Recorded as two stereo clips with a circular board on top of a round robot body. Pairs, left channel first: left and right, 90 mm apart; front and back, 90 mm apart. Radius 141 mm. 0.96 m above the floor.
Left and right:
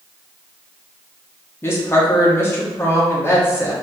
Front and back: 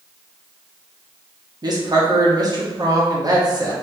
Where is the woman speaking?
150° left, 1.3 m.